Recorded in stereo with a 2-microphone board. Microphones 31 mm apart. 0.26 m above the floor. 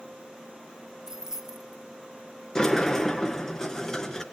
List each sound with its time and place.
1.1 s keys jangling: 15° right (ahead or behind), 0.6 m
2.5 s a sliding door: 15° left (ahead or behind), 2.5 m